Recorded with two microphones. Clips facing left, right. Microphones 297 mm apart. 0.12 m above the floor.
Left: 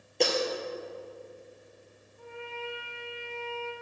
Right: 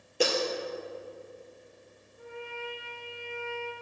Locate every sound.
0.2 s breaking glass: 5° right (ahead or behind), 1.7 m
2.2 s a trumpet: 20° right (ahead or behind), 1.2 m